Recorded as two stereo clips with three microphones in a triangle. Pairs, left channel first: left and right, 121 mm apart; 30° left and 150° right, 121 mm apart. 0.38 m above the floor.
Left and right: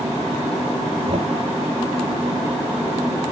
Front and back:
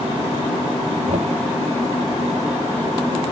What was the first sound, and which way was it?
Knocking, 130° right.